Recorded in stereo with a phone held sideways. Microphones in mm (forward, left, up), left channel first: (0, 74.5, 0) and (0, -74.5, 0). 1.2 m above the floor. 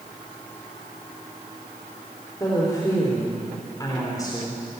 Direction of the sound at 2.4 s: 25° left (ahead or behind).